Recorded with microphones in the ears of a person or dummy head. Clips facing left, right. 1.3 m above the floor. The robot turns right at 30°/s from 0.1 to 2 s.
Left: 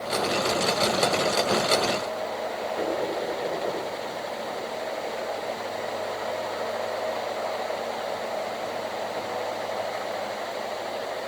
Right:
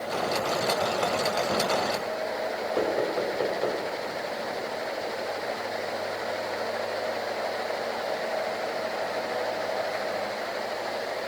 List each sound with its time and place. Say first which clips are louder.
2.8 s knocking: right 2 dB; 70° right (ahead or behind), 5.5 m